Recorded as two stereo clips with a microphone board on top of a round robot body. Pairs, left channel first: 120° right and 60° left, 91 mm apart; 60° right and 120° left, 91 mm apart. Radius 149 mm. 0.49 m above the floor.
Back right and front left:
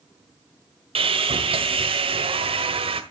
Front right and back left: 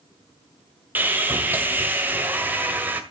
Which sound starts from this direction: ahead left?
Sawing, at 0.9 s.